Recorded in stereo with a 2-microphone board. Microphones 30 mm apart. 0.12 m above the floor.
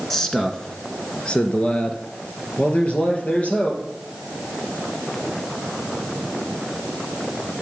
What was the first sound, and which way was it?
A man speaking, 15° left (ahead or behind).